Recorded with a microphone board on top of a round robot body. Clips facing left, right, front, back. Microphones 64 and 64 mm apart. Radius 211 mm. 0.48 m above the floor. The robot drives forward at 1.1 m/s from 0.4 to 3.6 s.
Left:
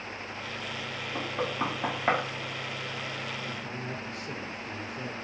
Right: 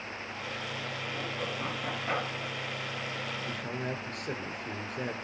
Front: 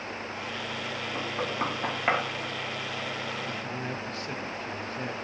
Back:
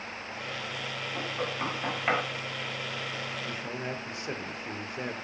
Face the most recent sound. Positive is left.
turn(degrees=-110)